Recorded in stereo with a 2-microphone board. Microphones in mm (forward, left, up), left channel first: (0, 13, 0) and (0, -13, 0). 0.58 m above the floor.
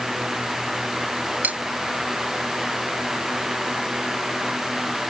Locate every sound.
1.4 s cutlery clinking: 80° right